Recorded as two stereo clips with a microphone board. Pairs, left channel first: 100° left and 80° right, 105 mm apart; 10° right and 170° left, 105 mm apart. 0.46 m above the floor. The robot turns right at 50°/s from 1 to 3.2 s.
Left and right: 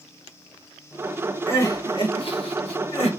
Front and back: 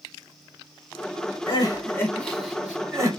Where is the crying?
30° left, 1.2 m; by 3.1 s 115° left, 1.2 m.